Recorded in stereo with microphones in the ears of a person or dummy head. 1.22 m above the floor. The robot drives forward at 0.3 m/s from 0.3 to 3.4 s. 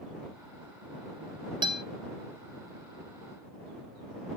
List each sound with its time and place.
1.6 s a guitar: 15° right (ahead or behind), 0.8 m; by 1.8 s 20° right (ahead or behind), 0.8 m